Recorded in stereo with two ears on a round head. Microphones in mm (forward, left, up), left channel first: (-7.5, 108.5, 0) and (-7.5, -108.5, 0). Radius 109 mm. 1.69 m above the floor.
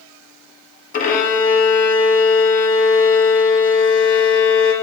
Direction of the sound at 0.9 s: 35° left (ahead or behind).